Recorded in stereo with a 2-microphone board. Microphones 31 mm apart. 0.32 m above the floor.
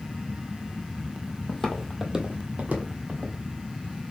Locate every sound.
1.5 s footsteps: 25° left (ahead or behind), 0.8 m; by 3.4 s 70° right (ahead or behind), 1.5 m